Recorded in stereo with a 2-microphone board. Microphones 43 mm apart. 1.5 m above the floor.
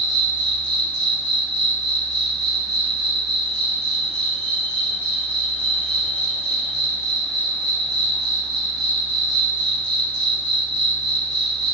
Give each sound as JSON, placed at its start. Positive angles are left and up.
{"t": 0.0, "sound": "an insect", "side_deg": 20, "distance_m": 1.6}